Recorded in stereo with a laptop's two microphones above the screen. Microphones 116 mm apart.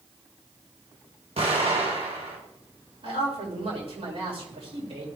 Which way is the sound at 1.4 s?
60° right (ahead or behind).